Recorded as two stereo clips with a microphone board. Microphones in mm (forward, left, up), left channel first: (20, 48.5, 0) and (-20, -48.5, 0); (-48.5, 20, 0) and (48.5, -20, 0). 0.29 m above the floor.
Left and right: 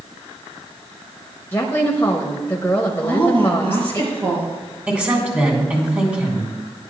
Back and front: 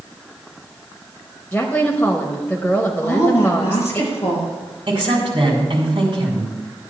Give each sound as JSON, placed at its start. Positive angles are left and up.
{"t": 1.5, "sound": "a woman speaking", "azimuth_deg": 105, "distance_m": 0.9}
{"t": 3.0, "sound": "a woman speaking", "azimuth_deg": -145, "distance_m": 4.0}
{"t": 4.9, "sound": "a woman speaking", "azimuth_deg": -35, "distance_m": 3.0}